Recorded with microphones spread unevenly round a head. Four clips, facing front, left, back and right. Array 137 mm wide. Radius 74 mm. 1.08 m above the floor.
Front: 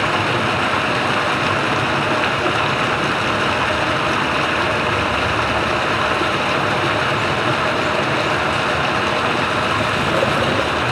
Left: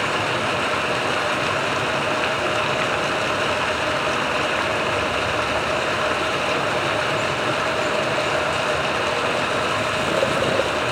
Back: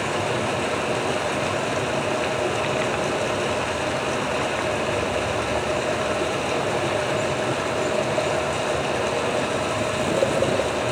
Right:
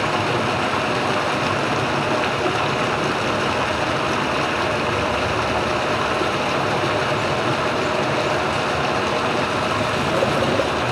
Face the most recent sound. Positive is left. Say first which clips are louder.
# right 2 dB, front 5 dB
turn(degrees=10)